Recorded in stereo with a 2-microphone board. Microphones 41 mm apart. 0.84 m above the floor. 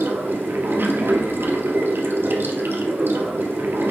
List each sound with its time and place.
0.0 s running water: 65° right (ahead or behind), 1.7 m